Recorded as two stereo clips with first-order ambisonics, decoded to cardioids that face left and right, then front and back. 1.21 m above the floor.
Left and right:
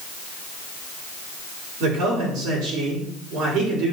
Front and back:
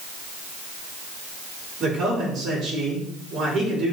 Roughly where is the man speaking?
Behind right.